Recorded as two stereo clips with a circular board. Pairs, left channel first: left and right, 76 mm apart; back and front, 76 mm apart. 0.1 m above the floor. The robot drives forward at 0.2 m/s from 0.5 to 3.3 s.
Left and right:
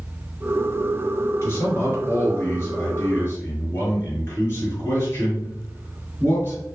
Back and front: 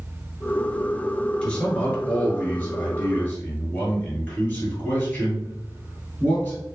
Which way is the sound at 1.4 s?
110° left.